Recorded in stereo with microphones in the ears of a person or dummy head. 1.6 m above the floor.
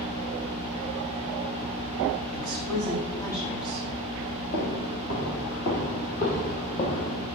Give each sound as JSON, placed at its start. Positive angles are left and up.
{"t": 2.3, "sound": "a woman speaking", "side_deg": 25, "distance_m": 2.5}
{"t": 4.5, "sound": "footsteps", "side_deg": 50, "distance_m": 2.5}